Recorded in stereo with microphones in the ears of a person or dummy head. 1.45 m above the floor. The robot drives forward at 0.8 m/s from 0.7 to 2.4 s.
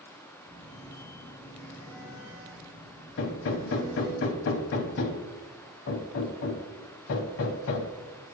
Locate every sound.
0.5 s a phone buzzing: 15° right (ahead or behind), 2.5 m; by 4.2 s 10° right (ahead or behind), 4 m
3.2 s hammering: 65° left (ahead or behind), 0.6 m